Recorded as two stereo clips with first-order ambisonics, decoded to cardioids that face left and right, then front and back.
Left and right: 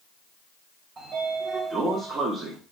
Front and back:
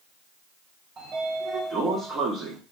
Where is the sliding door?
140° right, 0.7 m.